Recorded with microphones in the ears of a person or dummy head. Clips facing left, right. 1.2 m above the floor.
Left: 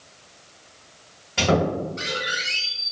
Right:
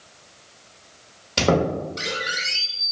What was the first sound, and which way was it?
A squeak, 55° right (ahead or behind).